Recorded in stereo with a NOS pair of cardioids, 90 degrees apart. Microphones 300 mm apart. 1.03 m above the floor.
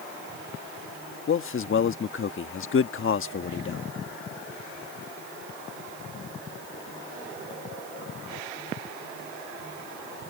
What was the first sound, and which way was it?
A man speaking, 45° left.